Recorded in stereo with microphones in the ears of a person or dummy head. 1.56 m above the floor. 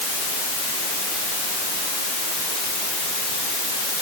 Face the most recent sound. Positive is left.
No sound to turn to.